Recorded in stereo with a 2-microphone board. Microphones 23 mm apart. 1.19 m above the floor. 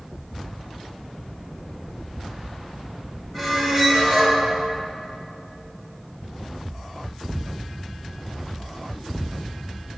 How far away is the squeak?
About 2 m.